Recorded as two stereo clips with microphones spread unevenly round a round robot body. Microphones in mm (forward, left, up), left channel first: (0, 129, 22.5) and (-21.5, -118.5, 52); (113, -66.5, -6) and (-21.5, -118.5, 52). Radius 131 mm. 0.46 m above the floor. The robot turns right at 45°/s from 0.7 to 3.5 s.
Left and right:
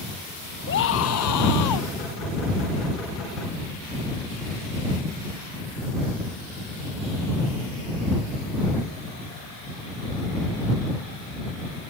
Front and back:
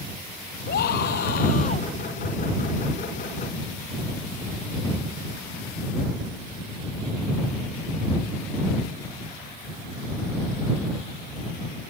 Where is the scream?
35° left; by 1.9 s 90° left.